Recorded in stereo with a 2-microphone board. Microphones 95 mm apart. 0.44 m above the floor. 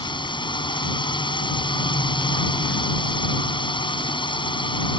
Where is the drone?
65° left (ahead or behind).